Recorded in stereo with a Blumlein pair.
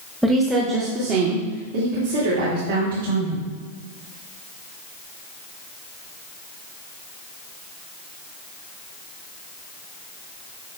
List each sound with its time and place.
0.2 s a woman speaking: 5° right, 1.3 m; by 3.4 s 70° right, 3.5 m